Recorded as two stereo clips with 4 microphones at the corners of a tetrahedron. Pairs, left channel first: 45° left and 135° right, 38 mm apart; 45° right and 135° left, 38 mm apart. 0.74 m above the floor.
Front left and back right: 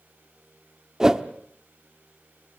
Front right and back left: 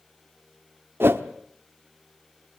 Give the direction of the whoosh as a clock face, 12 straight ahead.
7 o'clock.